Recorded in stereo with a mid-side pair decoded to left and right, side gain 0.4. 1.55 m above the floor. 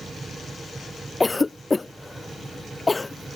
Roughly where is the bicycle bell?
No bicycle bell in this recording.